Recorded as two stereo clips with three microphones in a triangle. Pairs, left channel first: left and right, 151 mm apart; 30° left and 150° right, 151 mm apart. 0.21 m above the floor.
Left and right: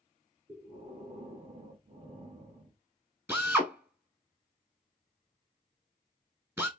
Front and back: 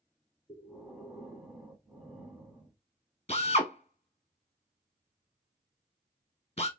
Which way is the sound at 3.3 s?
15° right.